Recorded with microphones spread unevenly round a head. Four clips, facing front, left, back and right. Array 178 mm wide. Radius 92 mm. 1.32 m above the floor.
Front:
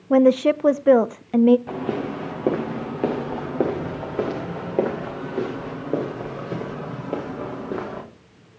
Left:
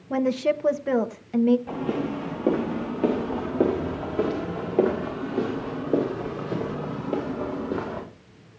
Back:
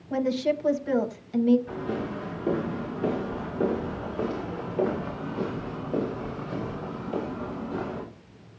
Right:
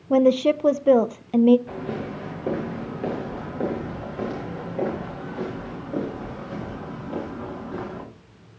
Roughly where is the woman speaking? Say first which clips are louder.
Right 6 dB, front 10 dB; ahead right.